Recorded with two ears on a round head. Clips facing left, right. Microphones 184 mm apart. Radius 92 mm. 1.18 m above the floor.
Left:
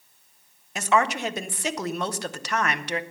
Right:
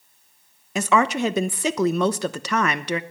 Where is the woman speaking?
70° right (ahead or behind), 0.9 m.